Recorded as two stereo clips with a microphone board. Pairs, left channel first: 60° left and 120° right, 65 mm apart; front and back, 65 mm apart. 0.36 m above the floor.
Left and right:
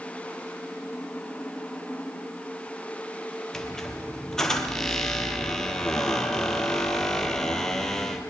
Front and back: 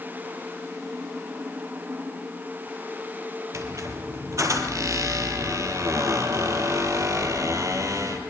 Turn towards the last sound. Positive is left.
turn(degrees=145)